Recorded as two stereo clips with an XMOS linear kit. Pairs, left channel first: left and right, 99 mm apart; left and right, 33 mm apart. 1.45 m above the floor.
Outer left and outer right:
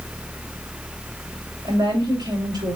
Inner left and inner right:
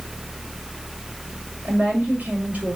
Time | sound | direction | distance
1.6 | a woman speaking | 50° right (ahead or behind) | 5 m